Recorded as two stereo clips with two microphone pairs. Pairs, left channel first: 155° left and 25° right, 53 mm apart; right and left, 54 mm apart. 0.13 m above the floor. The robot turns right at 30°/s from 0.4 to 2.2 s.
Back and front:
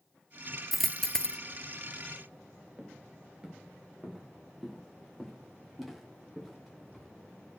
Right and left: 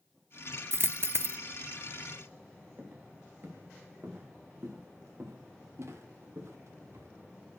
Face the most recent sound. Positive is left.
turn(degrees=65)